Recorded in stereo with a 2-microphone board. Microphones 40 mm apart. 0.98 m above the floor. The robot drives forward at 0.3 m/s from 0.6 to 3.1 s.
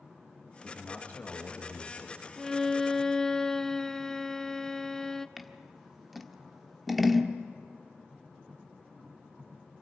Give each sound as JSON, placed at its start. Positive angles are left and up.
{"t": 0.6, "sound": "a man speaking", "side_deg": 40, "distance_m": 1.7}
{"t": 2.4, "sound": "a violin", "side_deg": 10, "distance_m": 0.5}
{"t": 5.4, "sound": "scissors", "side_deg": -5, "distance_m": 0.9}